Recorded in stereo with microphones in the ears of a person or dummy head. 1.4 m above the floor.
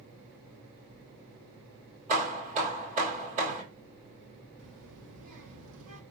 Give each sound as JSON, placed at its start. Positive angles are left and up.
{"t": 2.1, "sound": "hammering", "side_deg": -40, "distance_m": 1.9}
{"t": 4.6, "sound": "a child speaking", "side_deg": -80, "distance_m": 2.5}